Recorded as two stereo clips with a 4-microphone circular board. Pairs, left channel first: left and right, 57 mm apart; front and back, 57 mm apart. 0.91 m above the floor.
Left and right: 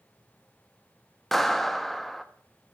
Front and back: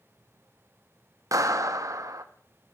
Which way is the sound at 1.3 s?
175° left.